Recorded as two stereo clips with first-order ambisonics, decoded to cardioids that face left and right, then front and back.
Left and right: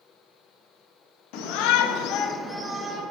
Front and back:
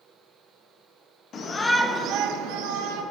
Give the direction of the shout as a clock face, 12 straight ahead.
10 o'clock.